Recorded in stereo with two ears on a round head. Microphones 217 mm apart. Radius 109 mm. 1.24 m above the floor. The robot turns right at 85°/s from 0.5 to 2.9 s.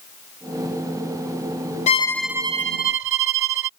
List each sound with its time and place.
1.9 s a violin: 150° left; by 3.7 s 125° right